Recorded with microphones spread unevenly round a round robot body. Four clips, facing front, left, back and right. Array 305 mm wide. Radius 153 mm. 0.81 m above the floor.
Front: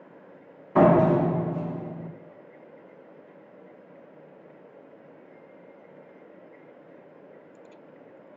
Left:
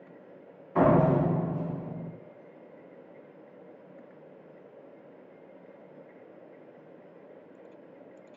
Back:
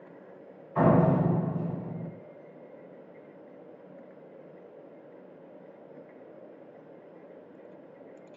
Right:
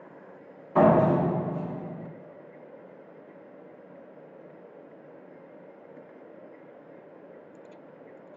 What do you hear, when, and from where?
0.8 s a door slam: 15° right, 1.3 m